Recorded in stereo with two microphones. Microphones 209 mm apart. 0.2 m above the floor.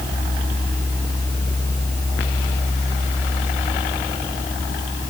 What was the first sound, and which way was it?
Only background noise.